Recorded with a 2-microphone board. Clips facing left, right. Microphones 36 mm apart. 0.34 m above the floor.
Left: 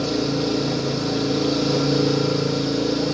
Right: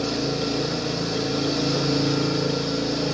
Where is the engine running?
45° left (ahead or behind), 8.5 m.